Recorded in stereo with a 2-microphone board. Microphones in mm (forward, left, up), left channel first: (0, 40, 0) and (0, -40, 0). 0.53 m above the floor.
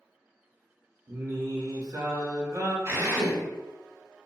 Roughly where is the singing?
Right.